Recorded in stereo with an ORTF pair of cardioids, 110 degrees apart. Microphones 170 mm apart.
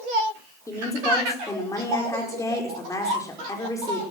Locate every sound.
0.7 s a woman speaking: 20° left, 5 m